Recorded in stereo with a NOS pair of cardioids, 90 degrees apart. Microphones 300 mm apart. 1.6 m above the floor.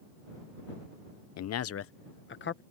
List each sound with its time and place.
1.4 s a man speaking: 60° left; by 2.6 s 35° left